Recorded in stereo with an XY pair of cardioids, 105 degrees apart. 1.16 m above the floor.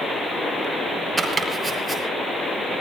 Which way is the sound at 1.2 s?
10° right.